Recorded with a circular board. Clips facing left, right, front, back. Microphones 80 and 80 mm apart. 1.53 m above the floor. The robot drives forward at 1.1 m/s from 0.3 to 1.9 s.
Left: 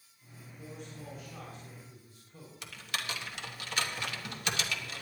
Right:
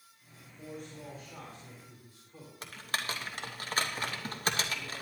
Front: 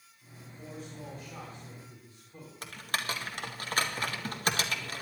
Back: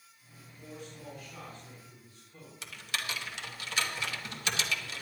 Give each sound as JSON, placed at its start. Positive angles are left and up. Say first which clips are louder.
{"t": 0.6, "sound": "a man speaking", "louder": "right 2 dB, front 2 dB", "azimuth_deg": -50, "distance_m": 5.0}
{"t": 2.6, "sound": "typing on a keyboard", "louder": "right 3 dB, front 3 dB", "azimuth_deg": -45, "distance_m": 1.4}